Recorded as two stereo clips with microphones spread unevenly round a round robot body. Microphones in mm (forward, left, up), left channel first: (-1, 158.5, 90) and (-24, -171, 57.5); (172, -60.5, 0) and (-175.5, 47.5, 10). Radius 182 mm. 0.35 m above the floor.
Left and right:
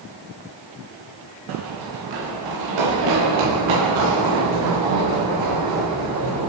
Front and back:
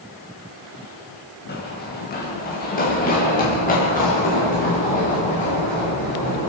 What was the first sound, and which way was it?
Running footsteps, 80° right.